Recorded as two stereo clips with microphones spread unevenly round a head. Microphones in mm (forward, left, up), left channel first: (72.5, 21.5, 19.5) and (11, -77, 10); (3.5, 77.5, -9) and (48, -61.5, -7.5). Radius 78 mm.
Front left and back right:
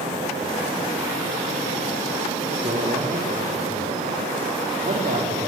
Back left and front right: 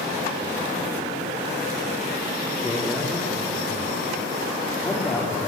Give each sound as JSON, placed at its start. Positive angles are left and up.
{"t": 2.6, "sound": "a man speaking", "azimuth_deg": -170, "distance_m": 3.0}